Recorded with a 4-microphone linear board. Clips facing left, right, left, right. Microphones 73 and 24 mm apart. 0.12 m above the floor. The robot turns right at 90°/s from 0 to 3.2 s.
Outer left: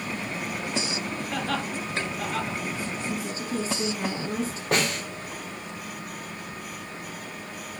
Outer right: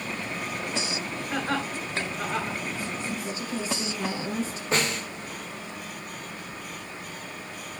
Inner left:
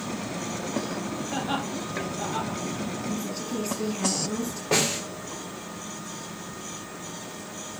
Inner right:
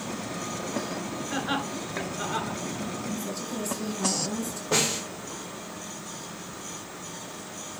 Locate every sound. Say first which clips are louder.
1.3 s laughter: outer right 2 dB, inner right 1 dB; 25° right (ahead or behind), 1.5 m; by 2.6 s 10° right (ahead or behind), 1.5 m
3.1 s a woman speaking: outer left 1 dB, inner left 2 dB; 25° left (ahead or behind), 2.5 m; by 4.6 s 35° left (ahead or behind), 2.5 m
4.7 s a snare drum: outer left 1 dB, inner left 1 dB; 65° left (ahead or behind), 4.5 m